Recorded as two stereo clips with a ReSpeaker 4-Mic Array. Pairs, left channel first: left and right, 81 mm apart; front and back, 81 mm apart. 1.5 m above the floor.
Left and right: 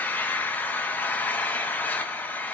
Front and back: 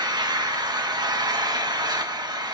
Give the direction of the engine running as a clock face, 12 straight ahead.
7 o'clock.